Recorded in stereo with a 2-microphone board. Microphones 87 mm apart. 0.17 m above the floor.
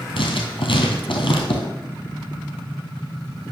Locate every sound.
0.2 s writing: 80° left, 1.6 m